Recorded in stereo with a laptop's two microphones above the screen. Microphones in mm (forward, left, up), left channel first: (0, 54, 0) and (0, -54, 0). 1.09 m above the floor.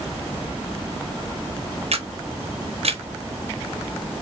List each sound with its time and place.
1.9 s a camera shutter: 65° right (ahead or behind), 0.9 m